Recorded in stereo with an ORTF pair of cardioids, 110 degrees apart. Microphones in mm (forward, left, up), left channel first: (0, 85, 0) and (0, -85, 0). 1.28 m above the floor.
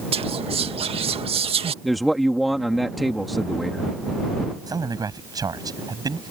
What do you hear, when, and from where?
0.1 s whispering: 35° right
1.8 s a man speaking: straight ahead
4.7 s a man speaking: 20° right